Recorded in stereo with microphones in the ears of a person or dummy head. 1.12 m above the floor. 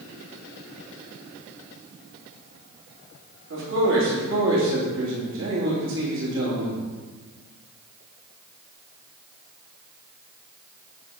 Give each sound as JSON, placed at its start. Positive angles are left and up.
{"t": 3.5, "sound": "a man speaking", "side_deg": -65, "distance_m": 3.0}